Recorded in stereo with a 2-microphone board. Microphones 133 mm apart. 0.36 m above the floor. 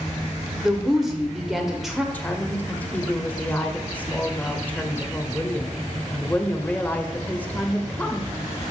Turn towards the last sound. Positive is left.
turn(degrees=10)  # may be behind; listen again after turning